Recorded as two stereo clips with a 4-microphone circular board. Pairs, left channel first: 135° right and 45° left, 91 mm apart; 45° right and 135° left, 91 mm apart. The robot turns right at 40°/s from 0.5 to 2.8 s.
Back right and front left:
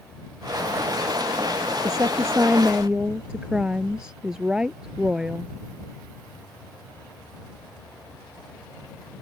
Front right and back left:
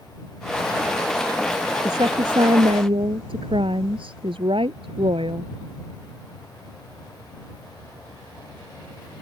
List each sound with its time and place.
1.9 s a woman speaking: 90° left; by 5.5 s 130° left